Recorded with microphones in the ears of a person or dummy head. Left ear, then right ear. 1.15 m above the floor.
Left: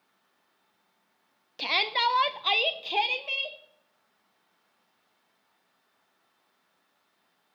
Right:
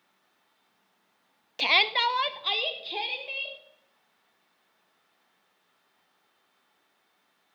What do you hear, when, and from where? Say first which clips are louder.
1.6 s a shout: right 3 dB; 20° right (ahead or behind), 0.5 m; by 3.6 s 55° left (ahead or behind), 1.2 m